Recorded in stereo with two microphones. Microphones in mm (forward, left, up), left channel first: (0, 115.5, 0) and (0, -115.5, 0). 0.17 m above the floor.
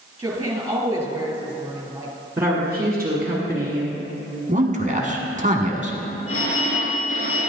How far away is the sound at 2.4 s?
About 1.9 m.